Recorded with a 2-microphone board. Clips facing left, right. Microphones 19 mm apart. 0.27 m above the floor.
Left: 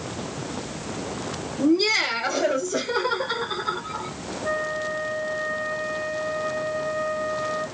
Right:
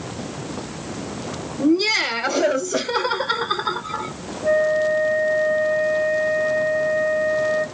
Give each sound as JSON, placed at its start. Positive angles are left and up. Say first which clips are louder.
{"t": 1.6, "sound": "laughter", "louder": "right 2 dB", "side_deg": -5, "distance_m": 1.1}
{"t": 4.4, "sound": "a flute", "louder": "right 9 dB", "side_deg": 5, "distance_m": 2.0}